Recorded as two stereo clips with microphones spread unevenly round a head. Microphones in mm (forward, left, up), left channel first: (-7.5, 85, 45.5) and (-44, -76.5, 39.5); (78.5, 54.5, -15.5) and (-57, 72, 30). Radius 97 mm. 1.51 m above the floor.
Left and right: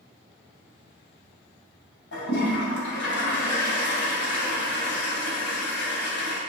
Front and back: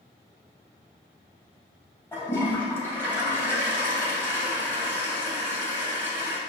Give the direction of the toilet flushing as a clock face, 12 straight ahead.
10 o'clock.